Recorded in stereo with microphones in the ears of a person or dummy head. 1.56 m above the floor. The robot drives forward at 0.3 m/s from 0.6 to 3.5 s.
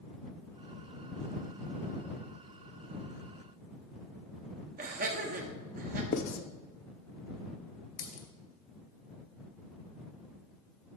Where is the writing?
55° left (ahead or behind), 0.8 m.